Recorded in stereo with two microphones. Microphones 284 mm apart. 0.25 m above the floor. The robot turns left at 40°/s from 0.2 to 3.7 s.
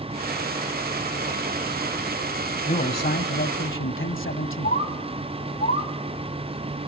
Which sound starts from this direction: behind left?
A man speaking, at 2.7 s.